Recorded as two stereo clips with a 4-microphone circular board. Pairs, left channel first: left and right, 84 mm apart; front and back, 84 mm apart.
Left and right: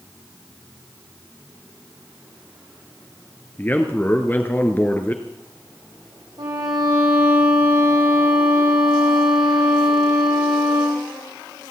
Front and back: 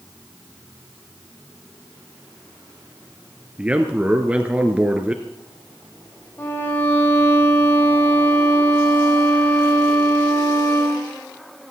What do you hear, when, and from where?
3.6 s a man speaking: 125° left, 1.1 m
6.4 s a violin: 60° right, 3.5 m